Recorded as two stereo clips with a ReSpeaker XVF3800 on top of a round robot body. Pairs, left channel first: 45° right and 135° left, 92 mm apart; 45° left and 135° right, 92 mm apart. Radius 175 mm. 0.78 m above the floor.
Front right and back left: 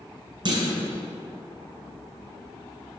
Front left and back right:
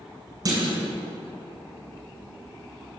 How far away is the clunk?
About 1.8 m.